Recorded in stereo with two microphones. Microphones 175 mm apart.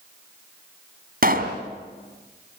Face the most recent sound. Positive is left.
turn(degrees=-60)  # may be behind; listen again after turning